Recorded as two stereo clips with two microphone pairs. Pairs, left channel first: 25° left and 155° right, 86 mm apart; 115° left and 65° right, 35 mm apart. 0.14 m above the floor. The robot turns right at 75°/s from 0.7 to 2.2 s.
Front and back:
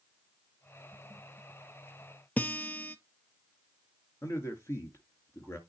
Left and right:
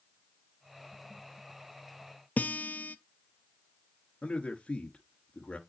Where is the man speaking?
75° left, 1.8 m.